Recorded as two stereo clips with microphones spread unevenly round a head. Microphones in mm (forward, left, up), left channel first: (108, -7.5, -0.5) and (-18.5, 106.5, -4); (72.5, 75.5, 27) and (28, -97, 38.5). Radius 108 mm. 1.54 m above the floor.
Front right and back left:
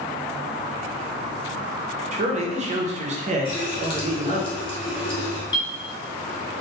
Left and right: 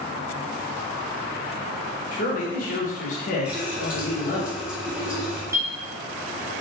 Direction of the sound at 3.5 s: 35° right.